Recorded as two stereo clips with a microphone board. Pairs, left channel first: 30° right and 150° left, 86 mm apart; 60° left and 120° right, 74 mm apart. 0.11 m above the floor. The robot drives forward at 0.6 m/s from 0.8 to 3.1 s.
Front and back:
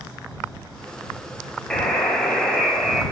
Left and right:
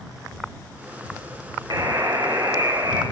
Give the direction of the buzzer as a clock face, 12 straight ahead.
4 o'clock.